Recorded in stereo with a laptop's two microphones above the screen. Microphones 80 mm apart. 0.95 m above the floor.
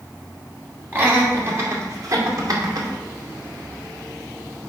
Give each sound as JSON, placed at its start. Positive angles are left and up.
{"t": 0.9, "sound": "laughter", "side_deg": -25, "distance_m": 2.0}